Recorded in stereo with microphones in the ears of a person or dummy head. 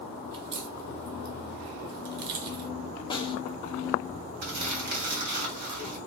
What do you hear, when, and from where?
0.3 s a crack: 60° right (ahead or behind), 0.7 m
3.1 s a snare drum: 25° left (ahead or behind), 0.6 m
4.4 s crumpling: 45° right (ahead or behind), 1.1 m